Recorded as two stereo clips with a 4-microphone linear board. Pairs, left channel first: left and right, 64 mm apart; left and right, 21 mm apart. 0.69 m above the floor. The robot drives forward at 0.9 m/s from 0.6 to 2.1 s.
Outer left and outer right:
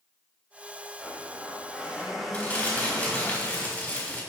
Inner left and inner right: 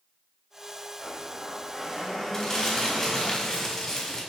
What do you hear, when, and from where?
1.0 s a blender: 5° right (ahead or behind), 3 m
2.3 s crumpling: 20° left (ahead or behind), 3.5 m